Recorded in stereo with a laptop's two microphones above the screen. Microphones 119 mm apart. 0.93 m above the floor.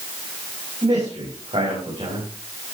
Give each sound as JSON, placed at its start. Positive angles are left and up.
{"t": 0.8, "sound": "a man speaking", "side_deg": -60, "distance_m": 7.0}